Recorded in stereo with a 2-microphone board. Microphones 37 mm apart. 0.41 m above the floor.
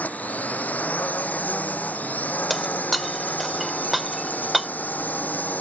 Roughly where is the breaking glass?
Centre.